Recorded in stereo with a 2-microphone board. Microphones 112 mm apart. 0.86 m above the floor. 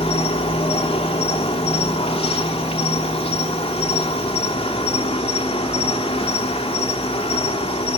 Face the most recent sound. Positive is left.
turn(degrees=60)  # may be behind; listen again after turning